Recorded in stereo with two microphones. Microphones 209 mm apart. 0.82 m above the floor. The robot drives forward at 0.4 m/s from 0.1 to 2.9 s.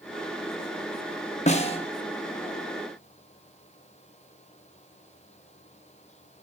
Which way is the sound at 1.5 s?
35° left (ahead or behind).